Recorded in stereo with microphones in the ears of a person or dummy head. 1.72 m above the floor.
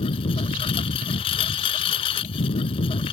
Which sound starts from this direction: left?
A lawn mower, at 0.0 s.